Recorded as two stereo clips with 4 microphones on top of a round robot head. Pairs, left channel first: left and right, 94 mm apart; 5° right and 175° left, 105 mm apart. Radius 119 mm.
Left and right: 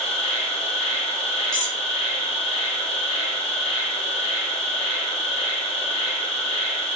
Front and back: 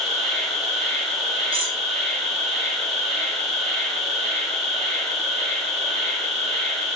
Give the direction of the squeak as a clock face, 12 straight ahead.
7 o'clock.